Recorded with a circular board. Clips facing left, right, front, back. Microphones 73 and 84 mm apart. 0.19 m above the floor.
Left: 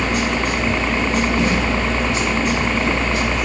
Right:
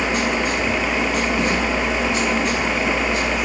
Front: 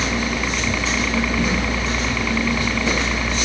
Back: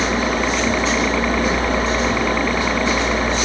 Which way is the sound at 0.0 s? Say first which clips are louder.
Left 1 dB, back 4 dB; 105° left.